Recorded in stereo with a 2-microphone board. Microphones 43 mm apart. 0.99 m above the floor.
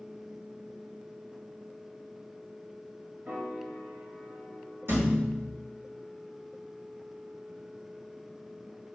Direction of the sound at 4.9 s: 60° right (ahead or behind).